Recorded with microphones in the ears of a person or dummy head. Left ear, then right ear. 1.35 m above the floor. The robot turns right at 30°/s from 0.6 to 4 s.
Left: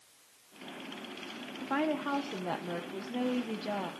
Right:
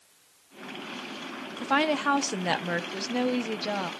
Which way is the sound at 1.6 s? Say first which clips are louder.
Right 8 dB; 90° right.